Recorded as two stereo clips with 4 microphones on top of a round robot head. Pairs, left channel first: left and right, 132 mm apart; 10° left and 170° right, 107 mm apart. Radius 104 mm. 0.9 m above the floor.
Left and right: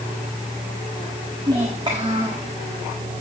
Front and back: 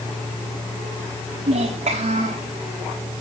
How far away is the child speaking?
About 1.6 m.